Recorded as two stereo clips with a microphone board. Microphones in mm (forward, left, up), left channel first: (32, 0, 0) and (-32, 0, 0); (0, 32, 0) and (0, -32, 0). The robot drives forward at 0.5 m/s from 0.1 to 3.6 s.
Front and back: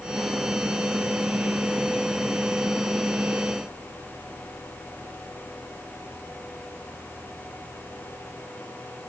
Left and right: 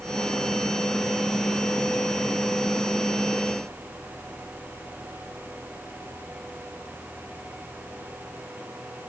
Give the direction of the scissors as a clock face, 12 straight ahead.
I don't hear scissors.